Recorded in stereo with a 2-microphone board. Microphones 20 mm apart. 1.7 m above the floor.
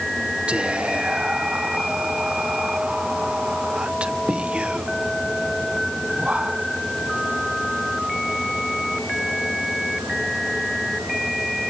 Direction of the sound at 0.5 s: 80° right.